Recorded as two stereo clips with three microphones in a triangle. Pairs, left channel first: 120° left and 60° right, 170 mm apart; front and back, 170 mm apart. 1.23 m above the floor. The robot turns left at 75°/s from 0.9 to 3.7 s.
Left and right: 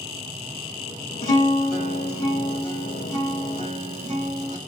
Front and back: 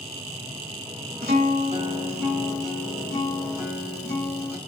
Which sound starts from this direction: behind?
A guitar, at 1.2 s.